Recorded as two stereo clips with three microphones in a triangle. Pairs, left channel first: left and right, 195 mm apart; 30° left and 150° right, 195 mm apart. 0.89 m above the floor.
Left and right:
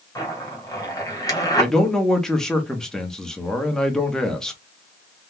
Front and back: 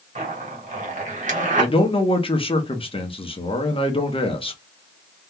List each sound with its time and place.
0.1 s a zipper: 165° left, 1.2 m
1.6 s a man speaking: 5° left, 0.8 m